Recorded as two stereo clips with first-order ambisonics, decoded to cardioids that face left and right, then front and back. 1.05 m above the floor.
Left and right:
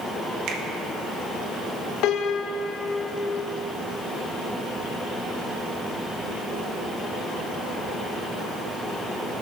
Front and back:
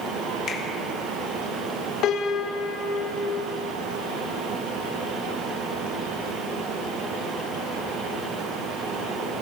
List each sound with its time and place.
0.5 s a finger snap: 50° right, 1.2 m
2.0 s a piano: 50° left, 0.7 m